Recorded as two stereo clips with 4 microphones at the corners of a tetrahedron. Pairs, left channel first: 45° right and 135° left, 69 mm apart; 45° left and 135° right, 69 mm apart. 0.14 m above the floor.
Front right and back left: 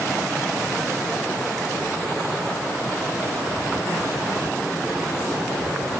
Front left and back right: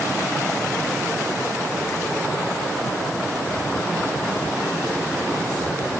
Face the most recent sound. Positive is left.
No sound to turn to.